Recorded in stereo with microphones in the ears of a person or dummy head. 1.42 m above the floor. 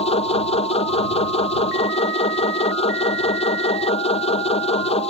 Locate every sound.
0.0 s a machine running: 35° left (ahead or behind)